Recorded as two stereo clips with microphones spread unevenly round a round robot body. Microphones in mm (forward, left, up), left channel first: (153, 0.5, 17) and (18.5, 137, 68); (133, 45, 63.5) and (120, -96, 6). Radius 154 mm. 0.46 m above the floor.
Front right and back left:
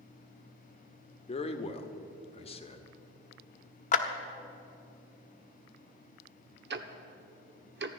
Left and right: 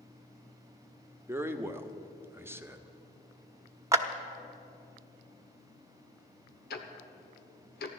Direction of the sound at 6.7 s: 105° left.